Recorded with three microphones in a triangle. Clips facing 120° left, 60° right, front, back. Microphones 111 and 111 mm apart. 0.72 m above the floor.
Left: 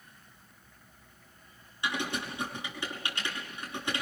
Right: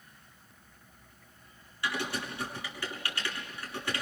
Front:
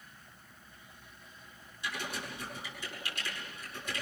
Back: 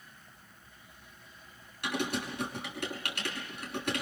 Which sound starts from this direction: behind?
Typing on a keyboard, at 1.8 s.